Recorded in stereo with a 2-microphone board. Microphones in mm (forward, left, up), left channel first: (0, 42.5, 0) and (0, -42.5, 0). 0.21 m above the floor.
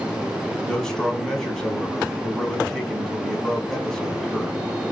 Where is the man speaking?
5° left (ahead or behind), 1.3 m.